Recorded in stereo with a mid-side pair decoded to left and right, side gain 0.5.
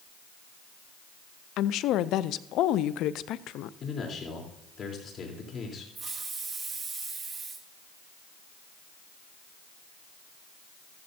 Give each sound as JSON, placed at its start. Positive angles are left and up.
{"t": 1.6, "sound": "a woman speaking", "azimuth_deg": 70, "distance_m": 0.5}
{"t": 3.8, "sound": "a man speaking", "azimuth_deg": 45, "distance_m": 3.5}
{"t": 6.0, "sound": "a hiss", "azimuth_deg": -25, "distance_m": 2.0}